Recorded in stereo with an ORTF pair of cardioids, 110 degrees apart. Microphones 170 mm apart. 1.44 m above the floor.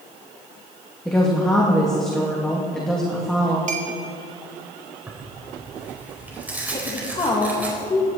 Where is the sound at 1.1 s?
5° left, 2 m.